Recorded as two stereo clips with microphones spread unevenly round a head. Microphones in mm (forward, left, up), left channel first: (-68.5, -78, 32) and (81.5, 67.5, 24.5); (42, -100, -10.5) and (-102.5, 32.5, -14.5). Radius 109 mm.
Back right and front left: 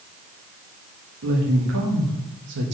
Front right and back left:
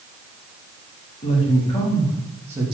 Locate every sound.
1.2 s a woman speaking: 15° left, 2.5 m; by 2.7 s 70° left, 1.5 m